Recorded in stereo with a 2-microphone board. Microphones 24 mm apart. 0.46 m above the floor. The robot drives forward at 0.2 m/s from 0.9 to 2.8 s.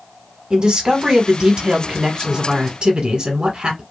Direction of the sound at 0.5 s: 35° right (ahead or behind).